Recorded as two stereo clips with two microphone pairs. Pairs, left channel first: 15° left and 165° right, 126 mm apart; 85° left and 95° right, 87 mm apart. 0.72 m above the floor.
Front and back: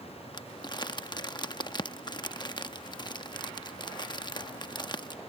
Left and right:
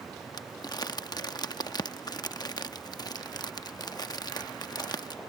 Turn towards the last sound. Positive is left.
turn(degrees=60)